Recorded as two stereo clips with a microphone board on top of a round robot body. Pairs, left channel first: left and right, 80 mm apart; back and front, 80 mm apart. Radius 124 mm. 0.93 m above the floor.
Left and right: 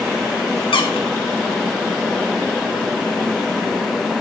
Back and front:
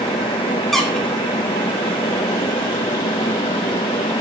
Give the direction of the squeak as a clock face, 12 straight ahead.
9 o'clock.